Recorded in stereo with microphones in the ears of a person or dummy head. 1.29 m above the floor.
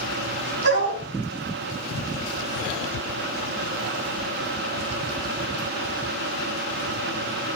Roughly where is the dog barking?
Right.